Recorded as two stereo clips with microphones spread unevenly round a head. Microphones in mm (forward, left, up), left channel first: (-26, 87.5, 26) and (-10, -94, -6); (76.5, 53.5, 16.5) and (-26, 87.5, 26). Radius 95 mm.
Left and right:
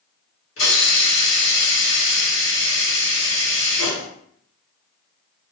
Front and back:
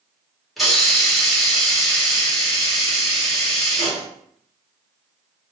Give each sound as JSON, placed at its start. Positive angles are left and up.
{"t": 0.6, "sound": "a hiss", "azimuth_deg": 70, "distance_m": 1.5}